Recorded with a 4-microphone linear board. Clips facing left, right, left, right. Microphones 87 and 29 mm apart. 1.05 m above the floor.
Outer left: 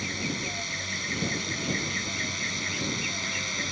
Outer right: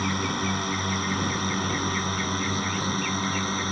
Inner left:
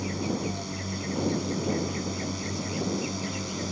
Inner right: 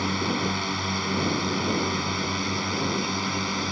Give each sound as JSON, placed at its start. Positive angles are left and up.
{"t": 0.0, "sound": "a drone", "side_deg": -50}